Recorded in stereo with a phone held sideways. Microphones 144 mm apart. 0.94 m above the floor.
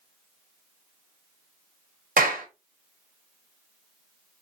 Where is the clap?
75° right (ahead or behind), 2 m.